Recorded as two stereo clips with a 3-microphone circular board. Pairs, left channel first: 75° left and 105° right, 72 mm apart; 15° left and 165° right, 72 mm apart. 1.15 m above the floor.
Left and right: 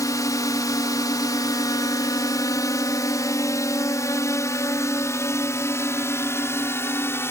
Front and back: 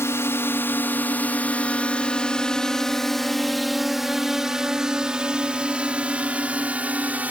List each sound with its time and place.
0.0 s a drone: 55° left; by 7.3 s 125° left